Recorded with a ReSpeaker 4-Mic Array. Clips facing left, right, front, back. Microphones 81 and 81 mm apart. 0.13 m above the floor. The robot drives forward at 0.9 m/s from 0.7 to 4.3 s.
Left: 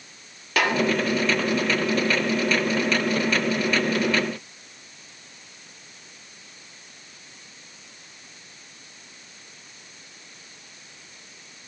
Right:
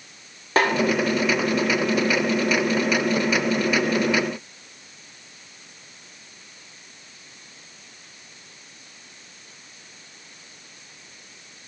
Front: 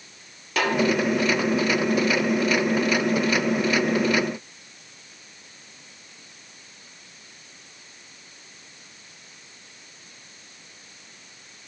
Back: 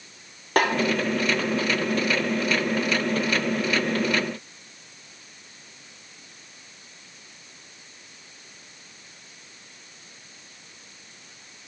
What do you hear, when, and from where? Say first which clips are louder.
0.6 s a snare drum: right 3 dB, back 3 dB; 140° right, 1.3 m